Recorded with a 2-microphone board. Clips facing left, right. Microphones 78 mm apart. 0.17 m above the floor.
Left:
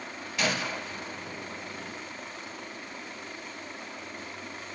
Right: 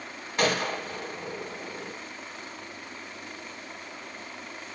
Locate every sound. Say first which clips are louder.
0.4 s a gunshot: right 4 dB; 45° right (ahead or behind), 4.5 m